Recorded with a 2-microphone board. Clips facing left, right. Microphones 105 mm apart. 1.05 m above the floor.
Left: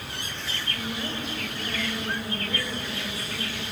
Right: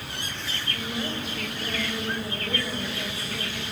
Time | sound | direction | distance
0.7 | a woman speaking | 10° right (ahead or behind) | 5 m